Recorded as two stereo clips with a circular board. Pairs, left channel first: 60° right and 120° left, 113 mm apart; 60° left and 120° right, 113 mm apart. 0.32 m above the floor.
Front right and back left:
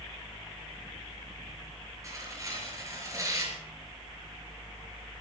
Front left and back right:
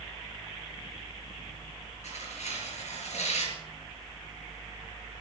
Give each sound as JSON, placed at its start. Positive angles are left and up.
{"t": 2.0, "sound": "tearing paper", "azimuth_deg": 60, "distance_m": 5.0}